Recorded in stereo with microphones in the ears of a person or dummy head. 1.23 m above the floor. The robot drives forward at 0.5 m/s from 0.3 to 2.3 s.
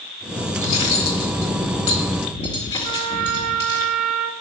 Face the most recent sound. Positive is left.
turn(degrees=-40)  # may be behind; listen again after turning